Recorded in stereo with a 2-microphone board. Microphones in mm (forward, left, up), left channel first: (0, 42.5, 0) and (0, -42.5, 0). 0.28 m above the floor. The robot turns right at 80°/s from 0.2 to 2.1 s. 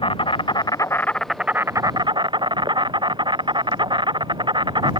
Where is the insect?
90° left; by 5.0 s 115° right.